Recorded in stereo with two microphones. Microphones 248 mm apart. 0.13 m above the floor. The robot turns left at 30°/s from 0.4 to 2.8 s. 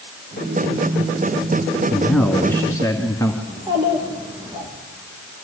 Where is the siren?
I don't hear a siren.